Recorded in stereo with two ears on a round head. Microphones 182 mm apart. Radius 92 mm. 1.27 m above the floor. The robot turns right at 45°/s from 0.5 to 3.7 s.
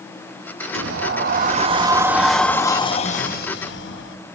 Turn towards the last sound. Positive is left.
turn(degrees=65)